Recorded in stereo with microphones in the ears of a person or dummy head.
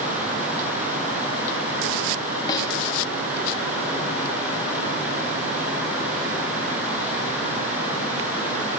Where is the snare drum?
15° left (ahead or behind), 4 m.